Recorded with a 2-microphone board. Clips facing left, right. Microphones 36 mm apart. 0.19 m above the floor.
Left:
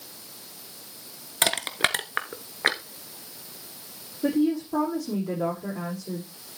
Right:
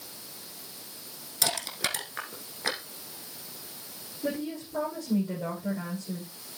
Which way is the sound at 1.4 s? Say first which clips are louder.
Left 7 dB; 45° left (ahead or behind).